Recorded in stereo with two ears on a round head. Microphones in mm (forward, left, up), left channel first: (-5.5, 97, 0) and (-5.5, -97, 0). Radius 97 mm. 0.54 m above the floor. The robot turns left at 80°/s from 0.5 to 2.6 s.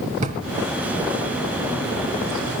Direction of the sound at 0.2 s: 35° right (ahead or behind).